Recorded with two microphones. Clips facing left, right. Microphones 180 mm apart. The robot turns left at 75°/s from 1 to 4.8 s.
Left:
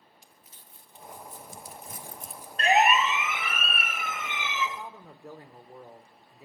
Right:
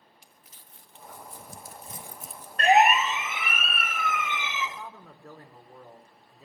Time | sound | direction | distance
0.2 | crumpling | 80° right | 1.7 m
2.6 | a siren | 55° right (ahead or behind) | 2.5 m
4.8 | a man speaking | 10° left (ahead or behind) | 1.5 m